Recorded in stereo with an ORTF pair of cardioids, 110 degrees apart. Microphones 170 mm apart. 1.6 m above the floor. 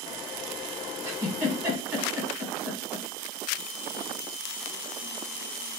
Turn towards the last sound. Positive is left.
turn(degrees=-15)